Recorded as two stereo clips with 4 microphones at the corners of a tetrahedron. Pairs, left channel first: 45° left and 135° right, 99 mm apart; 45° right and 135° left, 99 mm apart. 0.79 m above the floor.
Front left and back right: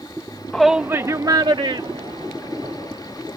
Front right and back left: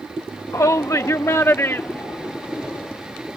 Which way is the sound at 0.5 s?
30° right.